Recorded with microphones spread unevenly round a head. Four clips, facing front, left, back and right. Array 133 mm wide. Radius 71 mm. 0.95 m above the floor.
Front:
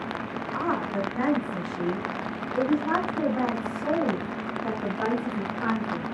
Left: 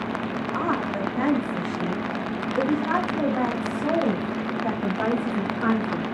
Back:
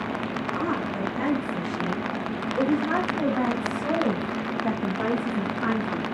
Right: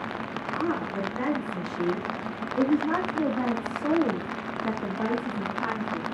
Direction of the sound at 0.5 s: 65° left.